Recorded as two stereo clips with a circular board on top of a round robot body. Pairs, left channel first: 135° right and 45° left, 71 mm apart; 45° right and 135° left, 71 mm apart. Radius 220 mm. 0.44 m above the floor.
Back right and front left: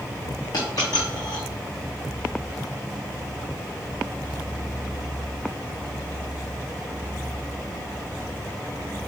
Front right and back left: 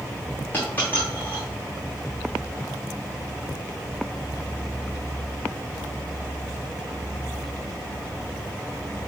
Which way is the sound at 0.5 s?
110° right.